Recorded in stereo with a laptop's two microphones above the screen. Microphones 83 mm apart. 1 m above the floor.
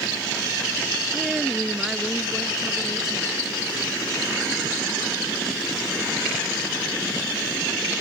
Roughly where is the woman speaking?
Centre.